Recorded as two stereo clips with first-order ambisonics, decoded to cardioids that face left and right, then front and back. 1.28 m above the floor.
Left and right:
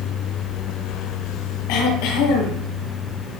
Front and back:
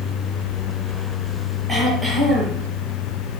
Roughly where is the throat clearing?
Left.